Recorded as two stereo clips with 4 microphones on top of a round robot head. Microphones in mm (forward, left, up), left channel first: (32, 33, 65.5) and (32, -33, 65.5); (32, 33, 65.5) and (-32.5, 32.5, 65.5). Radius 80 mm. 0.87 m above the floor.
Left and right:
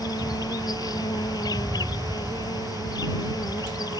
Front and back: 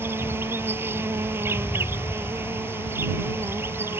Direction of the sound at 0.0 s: 130° left.